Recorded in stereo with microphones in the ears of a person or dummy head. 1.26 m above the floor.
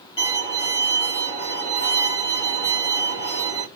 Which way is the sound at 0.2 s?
25° left (ahead or behind).